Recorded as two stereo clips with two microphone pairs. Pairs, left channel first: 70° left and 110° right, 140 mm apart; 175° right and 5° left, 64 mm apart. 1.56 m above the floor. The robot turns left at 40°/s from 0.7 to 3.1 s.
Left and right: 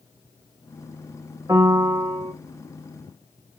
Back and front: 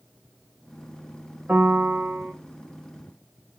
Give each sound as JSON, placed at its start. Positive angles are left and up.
{"t": 1.5, "sound": "a piano", "azimuth_deg": -50, "distance_m": 0.8}